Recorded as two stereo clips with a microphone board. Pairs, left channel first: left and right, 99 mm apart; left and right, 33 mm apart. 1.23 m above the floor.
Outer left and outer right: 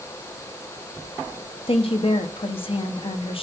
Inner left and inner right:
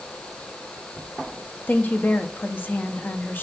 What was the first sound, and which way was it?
A woman speaking, 70° left (ahead or behind).